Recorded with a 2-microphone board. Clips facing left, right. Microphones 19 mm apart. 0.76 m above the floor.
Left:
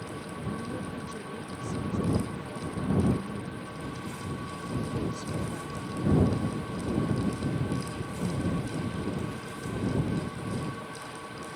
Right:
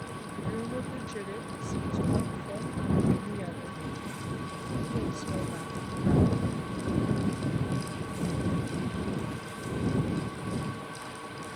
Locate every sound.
0.4 s a woman speaking: 50° right (ahead or behind)